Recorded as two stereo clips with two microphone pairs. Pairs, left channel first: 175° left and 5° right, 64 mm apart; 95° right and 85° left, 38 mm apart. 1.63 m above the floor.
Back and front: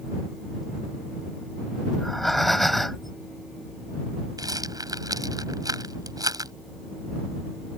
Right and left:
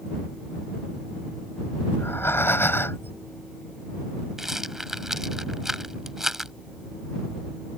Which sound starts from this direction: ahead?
A rattle, at 4.4 s.